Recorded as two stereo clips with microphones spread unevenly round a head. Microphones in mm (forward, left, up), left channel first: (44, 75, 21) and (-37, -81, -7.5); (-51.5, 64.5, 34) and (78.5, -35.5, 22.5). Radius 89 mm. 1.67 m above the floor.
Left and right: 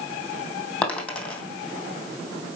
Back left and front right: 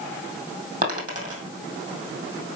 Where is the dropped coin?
10° right, 2.5 m.